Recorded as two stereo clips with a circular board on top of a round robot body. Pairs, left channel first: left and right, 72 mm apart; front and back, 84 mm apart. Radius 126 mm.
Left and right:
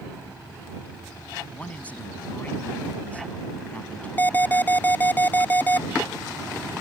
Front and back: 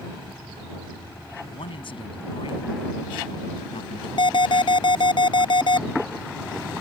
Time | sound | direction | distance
1.5 | a man speaking | 20° left | ?
4.2 | an alarm | 25° left | ?